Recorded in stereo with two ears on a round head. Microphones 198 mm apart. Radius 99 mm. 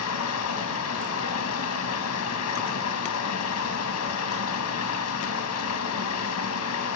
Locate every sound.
0.0 s running water: 80° left, 2 m